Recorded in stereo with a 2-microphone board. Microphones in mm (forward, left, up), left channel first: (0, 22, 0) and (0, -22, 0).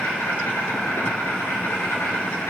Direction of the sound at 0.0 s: 80° left.